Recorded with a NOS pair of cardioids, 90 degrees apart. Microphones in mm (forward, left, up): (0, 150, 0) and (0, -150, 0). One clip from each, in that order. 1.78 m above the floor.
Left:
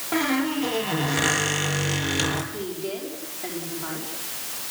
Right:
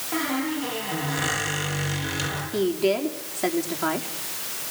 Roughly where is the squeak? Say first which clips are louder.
Left 3 dB; ahead left.